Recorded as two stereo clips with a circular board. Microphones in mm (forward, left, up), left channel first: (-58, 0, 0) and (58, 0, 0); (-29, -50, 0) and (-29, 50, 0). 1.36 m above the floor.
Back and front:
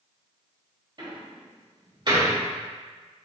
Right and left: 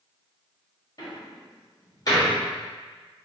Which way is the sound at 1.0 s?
45° right.